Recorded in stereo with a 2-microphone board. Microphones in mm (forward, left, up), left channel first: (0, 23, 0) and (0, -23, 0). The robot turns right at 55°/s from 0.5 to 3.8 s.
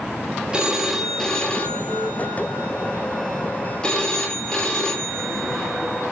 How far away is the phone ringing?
About 1.2 m.